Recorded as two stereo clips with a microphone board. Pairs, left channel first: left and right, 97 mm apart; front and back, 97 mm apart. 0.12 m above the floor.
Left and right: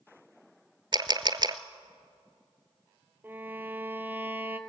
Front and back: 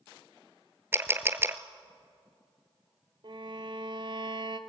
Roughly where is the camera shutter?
Behind right.